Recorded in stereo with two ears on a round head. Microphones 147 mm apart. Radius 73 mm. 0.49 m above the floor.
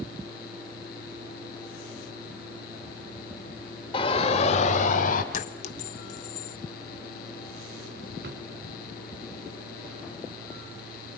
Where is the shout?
30° left (ahead or behind), 1.3 m; by 5.2 s 55° left (ahead or behind), 1.7 m.